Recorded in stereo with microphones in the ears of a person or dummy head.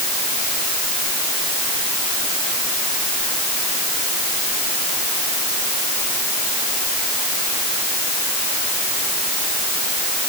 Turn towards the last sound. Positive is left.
No sound to turn to.